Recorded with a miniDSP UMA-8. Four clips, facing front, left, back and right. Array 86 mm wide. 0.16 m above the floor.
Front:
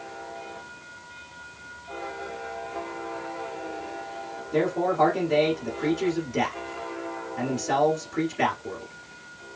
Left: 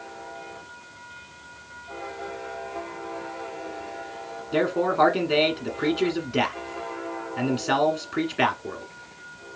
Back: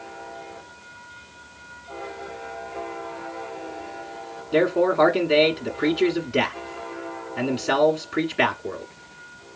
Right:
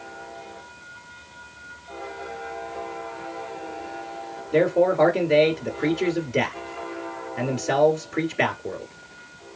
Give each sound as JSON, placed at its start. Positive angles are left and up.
{"t": 4.5, "sound": "a man speaking", "azimuth_deg": 145, "distance_m": 1.4}